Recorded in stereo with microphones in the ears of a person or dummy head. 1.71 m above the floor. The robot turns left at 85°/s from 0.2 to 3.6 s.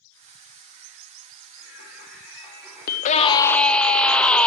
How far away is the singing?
About 4.5 m.